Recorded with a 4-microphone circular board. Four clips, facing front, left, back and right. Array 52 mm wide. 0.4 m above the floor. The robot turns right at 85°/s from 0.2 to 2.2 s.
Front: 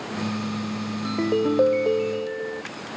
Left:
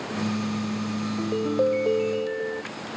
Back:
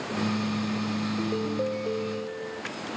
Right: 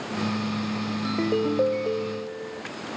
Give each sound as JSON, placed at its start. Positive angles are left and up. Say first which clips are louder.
{"t": 1.1, "sound": "a ringtone", "louder": "right 4 dB, front 6 dB", "azimuth_deg": -45}